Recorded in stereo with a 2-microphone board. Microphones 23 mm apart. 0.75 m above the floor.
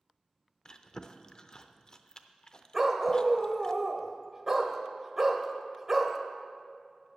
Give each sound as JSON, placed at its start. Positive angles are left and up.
{"t": 0.7, "sound": "chewing", "side_deg": 35, "distance_m": 0.5}
{"t": 2.7, "sound": "a dog barking", "side_deg": -20, "distance_m": 0.9}